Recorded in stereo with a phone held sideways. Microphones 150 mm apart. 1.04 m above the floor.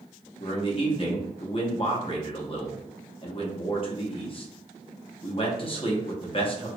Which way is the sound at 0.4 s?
35° left (ahead or behind).